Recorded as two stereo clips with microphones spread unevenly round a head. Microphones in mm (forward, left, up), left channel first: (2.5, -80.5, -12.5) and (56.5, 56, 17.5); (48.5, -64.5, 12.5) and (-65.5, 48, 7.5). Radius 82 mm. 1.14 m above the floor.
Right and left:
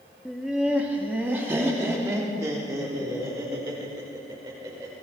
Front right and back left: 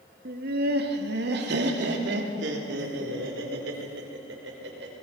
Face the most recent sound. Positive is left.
turn(degrees=140)